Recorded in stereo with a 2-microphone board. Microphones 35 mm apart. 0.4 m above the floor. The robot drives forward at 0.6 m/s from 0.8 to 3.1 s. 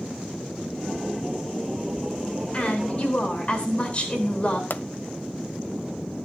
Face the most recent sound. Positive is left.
turn(degrees=65)  # may be behind; listen again after turning